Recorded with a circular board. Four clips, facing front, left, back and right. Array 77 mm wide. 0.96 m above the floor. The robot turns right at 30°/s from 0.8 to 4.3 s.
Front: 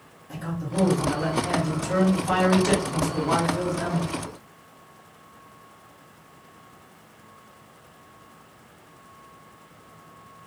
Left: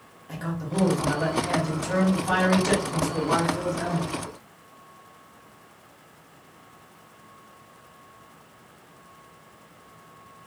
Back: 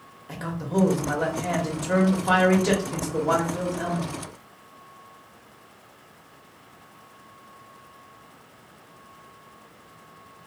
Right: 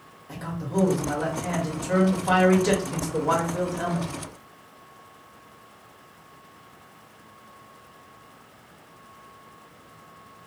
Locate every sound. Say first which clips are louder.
0.3 s a man speaking: right 1 dB, back 3 dB; 165° left, 1.2 m; by 4.1 s 100° right, 1.2 m